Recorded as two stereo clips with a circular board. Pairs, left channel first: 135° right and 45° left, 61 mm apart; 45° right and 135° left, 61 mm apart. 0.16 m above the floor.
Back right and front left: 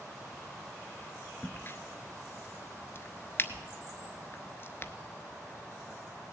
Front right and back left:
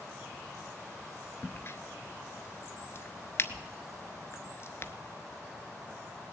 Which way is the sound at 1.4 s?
90° right.